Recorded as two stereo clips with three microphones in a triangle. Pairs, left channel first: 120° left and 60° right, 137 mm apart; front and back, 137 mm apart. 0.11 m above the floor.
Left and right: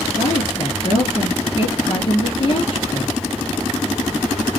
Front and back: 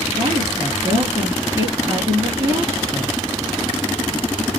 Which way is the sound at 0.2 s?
125° left.